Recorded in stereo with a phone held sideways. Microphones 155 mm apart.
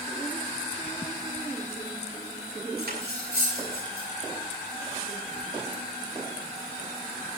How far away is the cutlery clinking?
About 7.5 m.